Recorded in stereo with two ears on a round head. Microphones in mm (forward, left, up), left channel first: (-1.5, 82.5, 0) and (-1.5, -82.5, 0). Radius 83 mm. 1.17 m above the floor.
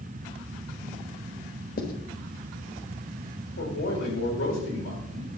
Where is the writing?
50° left (ahead or behind), 1.2 m.